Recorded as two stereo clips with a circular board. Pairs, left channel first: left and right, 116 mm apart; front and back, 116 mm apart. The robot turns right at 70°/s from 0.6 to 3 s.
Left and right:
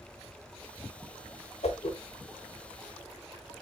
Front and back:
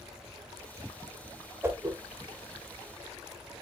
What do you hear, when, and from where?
1.6 s a whoosh: 110° left, 0.9 m; by 2.0 s 135° left, 0.9 m